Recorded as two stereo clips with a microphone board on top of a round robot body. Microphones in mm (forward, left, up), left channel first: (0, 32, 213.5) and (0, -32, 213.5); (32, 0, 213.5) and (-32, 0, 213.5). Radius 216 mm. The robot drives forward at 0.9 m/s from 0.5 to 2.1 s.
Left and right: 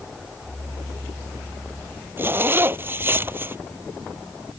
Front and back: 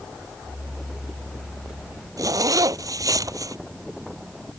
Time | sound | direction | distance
2.2 | a zipper | 145° right | ?